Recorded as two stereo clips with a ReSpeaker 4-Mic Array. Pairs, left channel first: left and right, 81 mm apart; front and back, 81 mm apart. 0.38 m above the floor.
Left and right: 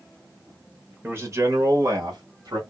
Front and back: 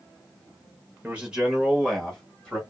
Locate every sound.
1.0 s a man speaking: 120° right, 1.0 m; by 2.6 s 75° right, 1.5 m